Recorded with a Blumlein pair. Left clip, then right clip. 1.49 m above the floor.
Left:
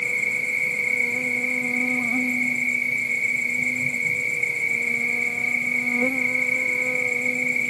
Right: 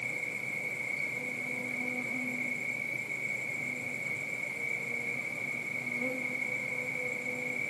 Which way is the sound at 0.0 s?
55° left.